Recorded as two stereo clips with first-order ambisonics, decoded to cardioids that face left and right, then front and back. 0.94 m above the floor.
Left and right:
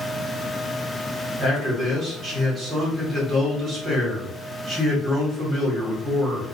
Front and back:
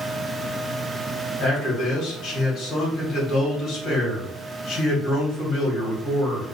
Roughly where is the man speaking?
Ahead right.